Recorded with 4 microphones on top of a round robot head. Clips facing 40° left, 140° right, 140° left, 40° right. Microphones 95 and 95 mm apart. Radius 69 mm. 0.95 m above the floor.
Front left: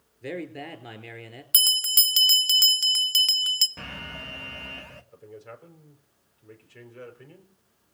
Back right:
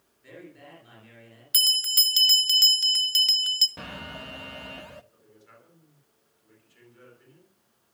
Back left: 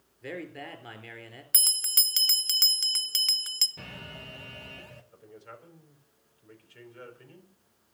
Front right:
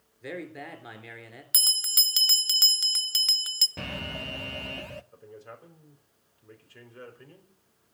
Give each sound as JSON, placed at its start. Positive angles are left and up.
{"t": 0.2, "sound": "a man speaking", "azimuth_deg": 45, "distance_m": 4.0}
{"t": 1.5, "sound": "a bell", "azimuth_deg": 35, "distance_m": 1.3}
{"t": 3.8, "sound": "an alarm", "azimuth_deg": -65, "distance_m": 0.8}
{"t": 5.1, "sound": "a man speaking", "azimuth_deg": 15, "distance_m": 4.5}